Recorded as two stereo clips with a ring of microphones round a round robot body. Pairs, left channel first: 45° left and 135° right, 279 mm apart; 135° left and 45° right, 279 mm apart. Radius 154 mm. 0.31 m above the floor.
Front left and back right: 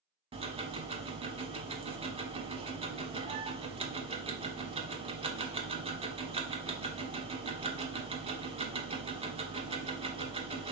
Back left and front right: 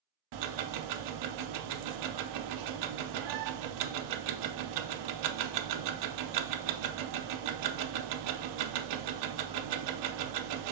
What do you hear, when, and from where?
0.3 s ticking: 65° right, 0.5 m